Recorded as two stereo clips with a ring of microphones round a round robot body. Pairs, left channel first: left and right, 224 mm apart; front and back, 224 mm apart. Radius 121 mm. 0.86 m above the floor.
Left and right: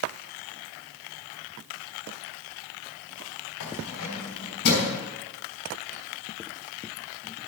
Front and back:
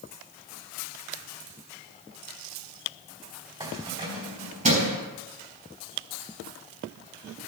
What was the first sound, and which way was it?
Keys jangling, 115° left.